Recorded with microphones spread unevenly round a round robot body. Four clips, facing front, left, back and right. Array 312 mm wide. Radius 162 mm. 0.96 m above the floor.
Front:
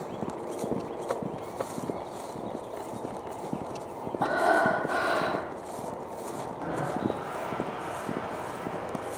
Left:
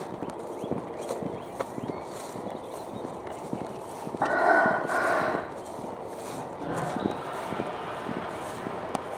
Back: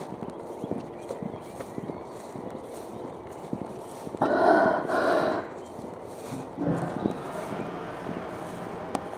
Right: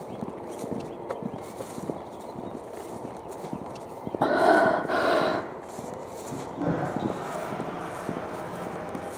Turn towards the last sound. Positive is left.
turn(degrees=-145)